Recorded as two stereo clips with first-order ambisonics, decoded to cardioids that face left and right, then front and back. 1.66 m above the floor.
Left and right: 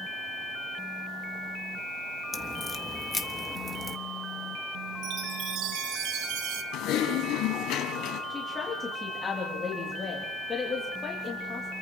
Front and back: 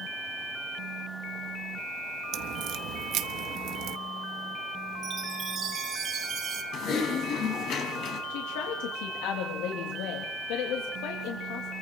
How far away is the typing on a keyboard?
About 4.5 m.